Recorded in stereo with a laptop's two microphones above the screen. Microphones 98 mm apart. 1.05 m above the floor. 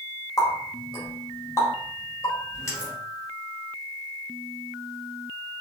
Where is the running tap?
30° left (ahead or behind), 2 m.